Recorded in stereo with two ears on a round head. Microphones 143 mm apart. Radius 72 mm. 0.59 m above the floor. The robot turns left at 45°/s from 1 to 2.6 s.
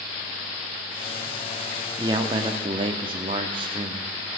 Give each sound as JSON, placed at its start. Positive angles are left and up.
{"t": 2.0, "sound": "a man speaking", "side_deg": -25, "distance_m": 1.2}